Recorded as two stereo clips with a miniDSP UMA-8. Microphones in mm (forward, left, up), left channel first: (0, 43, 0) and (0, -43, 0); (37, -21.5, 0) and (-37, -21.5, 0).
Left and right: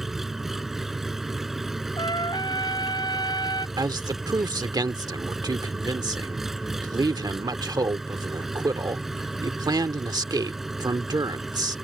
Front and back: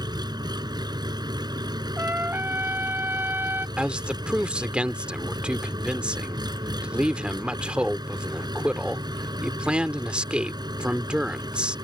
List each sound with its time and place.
0.0 s an engine running: 175° right
2.0 s a trumpet: 120° left
3.8 s a man speaking: 105° right